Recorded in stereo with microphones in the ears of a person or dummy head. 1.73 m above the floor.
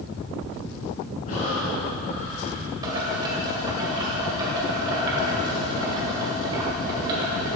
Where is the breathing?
45° left (ahead or behind), 1.6 m.